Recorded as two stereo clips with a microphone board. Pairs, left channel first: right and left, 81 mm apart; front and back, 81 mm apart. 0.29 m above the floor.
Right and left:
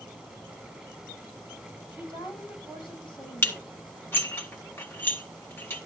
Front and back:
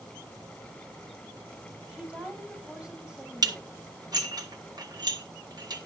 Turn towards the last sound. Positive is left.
turn(degrees=-150)